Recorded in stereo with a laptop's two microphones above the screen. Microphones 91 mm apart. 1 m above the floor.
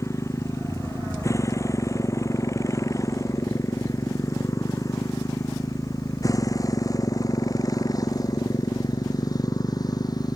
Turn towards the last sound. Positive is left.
turn(degrees=45)  # may be behind; listen again after turning